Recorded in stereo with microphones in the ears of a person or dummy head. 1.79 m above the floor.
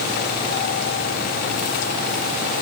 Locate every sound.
Only background noise.